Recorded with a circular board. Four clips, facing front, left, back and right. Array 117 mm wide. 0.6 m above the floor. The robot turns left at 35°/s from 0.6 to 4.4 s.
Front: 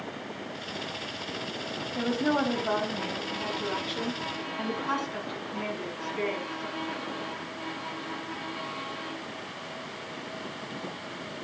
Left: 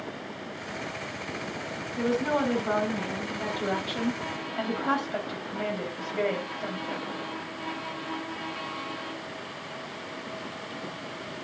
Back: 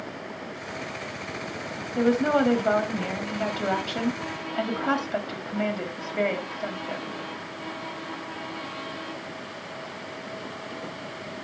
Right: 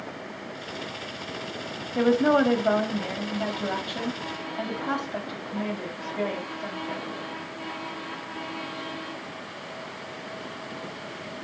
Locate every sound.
1.9 s a woman speaking: 110° right, 4 m; by 7.1 s 165° left, 4 m